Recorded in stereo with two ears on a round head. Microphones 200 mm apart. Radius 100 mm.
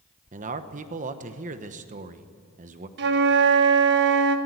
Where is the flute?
55° right (ahead or behind), 1.2 m.